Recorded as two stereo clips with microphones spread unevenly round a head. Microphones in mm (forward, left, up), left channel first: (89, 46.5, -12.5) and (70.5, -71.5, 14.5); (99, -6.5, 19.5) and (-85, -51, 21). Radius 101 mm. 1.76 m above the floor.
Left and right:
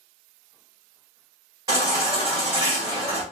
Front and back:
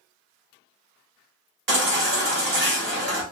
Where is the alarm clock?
I don't hear an alarm clock.